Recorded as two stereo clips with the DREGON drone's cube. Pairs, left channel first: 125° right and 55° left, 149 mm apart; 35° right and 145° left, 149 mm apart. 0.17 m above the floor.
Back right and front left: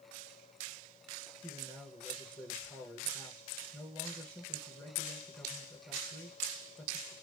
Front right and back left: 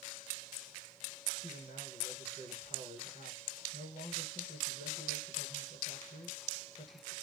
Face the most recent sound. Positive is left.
turn(degrees=-45)